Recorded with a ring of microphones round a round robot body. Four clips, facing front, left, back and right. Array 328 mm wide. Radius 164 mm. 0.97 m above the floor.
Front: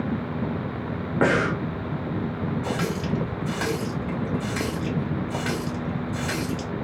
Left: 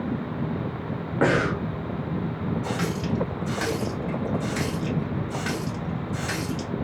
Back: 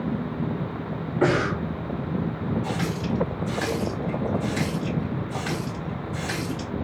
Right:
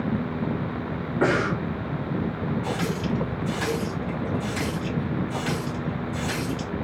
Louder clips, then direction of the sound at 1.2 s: Left 1 dB, even; 20° left.